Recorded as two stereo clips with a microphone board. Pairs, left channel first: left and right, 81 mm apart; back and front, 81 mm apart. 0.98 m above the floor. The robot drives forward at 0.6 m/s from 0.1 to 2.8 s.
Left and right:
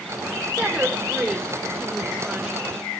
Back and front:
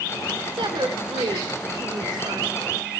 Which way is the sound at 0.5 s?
5° right.